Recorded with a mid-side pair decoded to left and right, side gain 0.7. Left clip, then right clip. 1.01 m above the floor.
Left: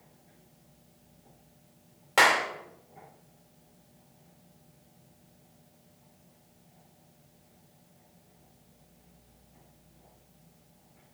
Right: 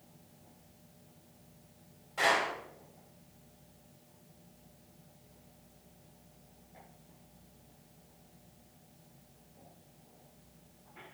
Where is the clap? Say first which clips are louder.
Left 7 dB; 65° left, 3 m.